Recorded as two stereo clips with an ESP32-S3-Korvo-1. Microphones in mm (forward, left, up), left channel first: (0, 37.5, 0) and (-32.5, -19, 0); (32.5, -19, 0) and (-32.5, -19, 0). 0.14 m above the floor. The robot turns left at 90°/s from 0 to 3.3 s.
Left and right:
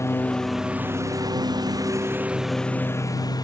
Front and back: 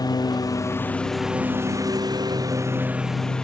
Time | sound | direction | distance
0.0 | a lawn mower | 15° left | ?